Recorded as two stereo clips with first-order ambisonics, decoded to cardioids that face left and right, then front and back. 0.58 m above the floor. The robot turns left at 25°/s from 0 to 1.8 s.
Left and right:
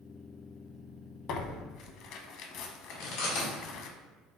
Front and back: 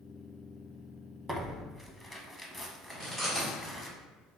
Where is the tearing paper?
105° left, 0.5 m; by 3.9 s 90° left, 0.5 m.